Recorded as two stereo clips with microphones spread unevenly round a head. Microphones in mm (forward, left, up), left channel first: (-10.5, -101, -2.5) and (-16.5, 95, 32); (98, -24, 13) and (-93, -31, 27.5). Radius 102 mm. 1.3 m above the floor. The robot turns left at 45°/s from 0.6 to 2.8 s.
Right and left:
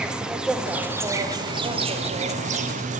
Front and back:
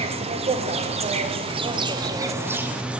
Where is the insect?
165° right, 1.2 m; by 3.0 s 95° left, 1.2 m.